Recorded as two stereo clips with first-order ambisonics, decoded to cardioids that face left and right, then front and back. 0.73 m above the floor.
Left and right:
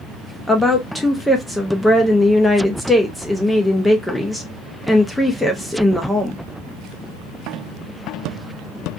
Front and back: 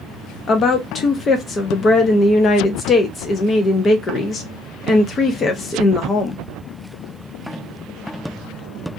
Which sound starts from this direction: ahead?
A woman speaking, at 0.5 s.